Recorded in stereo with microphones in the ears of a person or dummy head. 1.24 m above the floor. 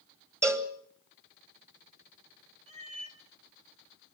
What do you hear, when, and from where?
0.4 s a cowbell: 10° right (ahead or behind), 1.4 m
2.7 s a cat meowing: 35° right (ahead or behind), 3 m